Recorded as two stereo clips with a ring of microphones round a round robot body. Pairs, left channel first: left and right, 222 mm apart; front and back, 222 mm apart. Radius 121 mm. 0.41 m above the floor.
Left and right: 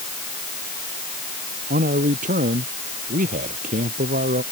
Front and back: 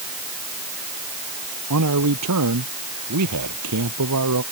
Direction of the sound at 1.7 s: 150° right.